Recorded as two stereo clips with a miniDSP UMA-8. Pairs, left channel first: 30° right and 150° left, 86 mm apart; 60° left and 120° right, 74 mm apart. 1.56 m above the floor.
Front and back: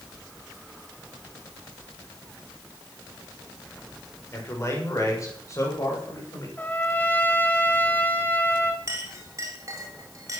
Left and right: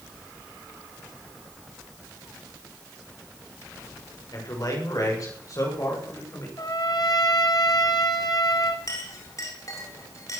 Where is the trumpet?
40° left, 2.5 m.